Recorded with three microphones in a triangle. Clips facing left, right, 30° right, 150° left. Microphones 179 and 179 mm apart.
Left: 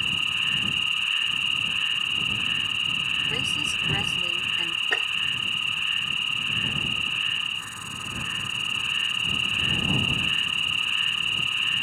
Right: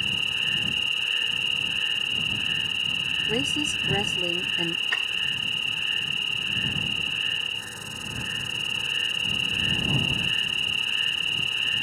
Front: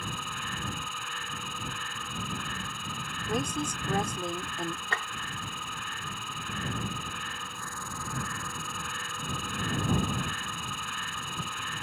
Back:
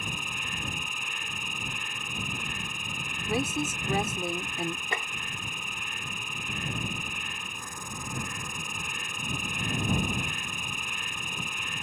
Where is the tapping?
80° left.